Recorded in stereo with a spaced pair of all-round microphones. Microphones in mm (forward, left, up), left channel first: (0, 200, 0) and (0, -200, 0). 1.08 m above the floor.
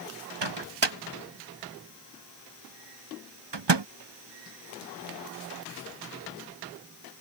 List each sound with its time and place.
0.4 s a microwave: 90° right